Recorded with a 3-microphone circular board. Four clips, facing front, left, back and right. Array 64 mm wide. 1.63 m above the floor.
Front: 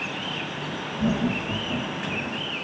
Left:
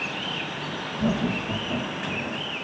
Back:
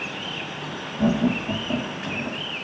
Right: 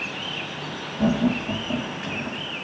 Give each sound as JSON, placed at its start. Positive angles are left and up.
{"t": 1.0, "sound": "laughter", "azimuth_deg": -140, "distance_m": 3.5}